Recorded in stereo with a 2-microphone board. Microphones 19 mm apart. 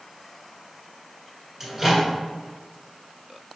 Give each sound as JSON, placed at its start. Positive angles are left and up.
{"t": 1.6, "sound": "a microwave", "side_deg": -15, "distance_m": 1.3}